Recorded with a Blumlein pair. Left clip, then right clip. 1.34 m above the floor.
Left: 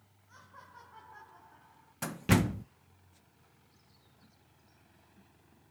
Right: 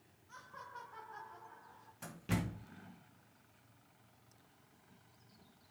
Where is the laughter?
5° right, 4 m; by 1.9 s 15° right, 5 m.